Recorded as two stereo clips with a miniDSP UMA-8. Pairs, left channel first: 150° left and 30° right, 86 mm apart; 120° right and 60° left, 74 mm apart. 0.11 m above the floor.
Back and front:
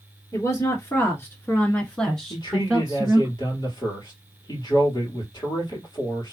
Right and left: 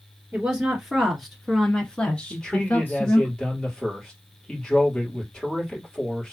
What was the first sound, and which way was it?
A woman speaking, 135° left.